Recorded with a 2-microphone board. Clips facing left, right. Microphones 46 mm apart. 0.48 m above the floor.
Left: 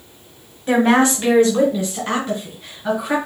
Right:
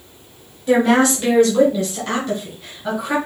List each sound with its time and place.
0.7 s a woman speaking: 20° left (ahead or behind), 1.1 m; by 3.1 s 5° left (ahead or behind), 2.5 m